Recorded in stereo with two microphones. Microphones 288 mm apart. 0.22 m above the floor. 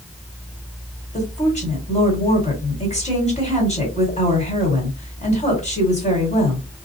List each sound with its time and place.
1.1 s a woman speaking: 25° left (ahead or behind), 1.7 m